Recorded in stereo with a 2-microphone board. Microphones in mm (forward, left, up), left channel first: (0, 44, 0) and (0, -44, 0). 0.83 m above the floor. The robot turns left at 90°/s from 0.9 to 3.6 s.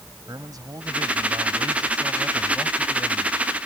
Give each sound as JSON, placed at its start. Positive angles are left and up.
{"t": 0.3, "sound": "a man speaking", "azimuth_deg": -45}